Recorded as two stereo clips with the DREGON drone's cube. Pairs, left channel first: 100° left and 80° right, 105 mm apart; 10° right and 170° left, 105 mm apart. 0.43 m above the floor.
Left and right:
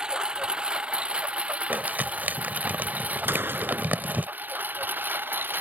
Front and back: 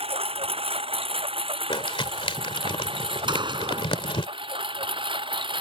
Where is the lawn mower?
160° right; by 5.6 s 150° right.